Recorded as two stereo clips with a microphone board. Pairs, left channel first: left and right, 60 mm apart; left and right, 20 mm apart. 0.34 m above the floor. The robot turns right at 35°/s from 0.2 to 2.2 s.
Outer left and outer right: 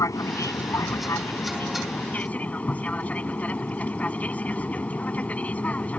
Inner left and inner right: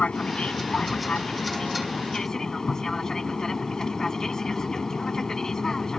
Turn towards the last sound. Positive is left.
turn(degrees=150)